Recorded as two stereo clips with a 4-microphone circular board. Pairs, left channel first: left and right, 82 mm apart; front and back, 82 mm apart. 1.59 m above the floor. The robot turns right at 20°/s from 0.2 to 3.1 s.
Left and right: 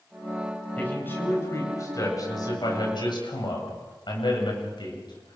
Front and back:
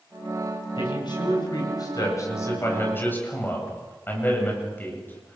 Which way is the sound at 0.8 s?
20° left.